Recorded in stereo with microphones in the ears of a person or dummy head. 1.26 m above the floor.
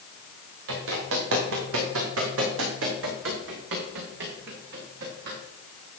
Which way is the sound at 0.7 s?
65° right (ahead or behind).